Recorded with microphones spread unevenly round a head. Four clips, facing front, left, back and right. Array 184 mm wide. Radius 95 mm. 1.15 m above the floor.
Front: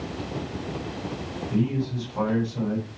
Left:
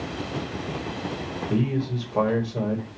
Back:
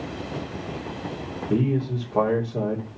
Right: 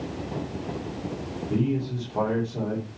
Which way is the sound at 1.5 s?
Straight behind.